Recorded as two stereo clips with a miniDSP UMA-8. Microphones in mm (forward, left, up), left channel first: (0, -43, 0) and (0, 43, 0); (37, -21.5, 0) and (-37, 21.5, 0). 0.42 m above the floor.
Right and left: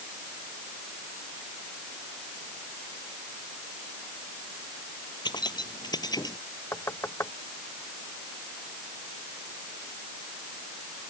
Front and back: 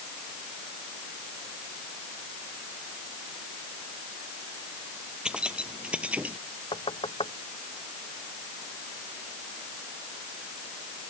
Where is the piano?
I don't hear a piano.